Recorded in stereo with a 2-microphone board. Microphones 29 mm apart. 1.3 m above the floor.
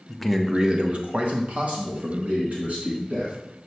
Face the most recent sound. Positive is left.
turn(degrees=-75)  # may be behind; listen again after turning